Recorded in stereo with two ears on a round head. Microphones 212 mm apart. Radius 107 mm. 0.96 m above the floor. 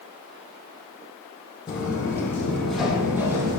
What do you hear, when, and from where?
1.7 s footsteps: 20° left (ahead or behind), 2.5 m; by 3.6 s 15° right (ahead or behind), 1.9 m